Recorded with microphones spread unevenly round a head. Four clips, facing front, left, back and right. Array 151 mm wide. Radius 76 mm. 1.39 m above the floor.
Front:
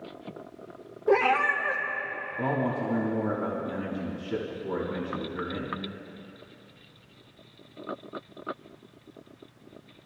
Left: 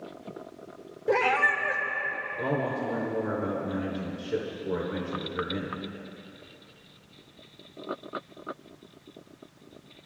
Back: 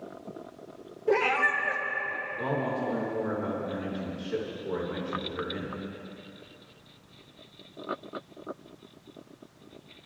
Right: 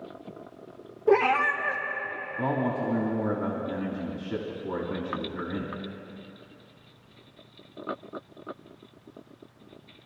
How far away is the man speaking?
About 2.5 m.